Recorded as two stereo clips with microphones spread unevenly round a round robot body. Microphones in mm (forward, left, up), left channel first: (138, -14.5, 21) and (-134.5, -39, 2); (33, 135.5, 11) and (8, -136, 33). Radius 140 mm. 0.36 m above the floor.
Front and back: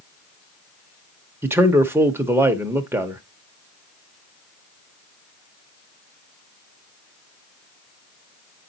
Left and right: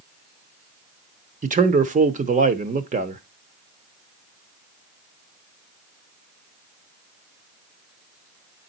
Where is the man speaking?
115° right, 0.8 m.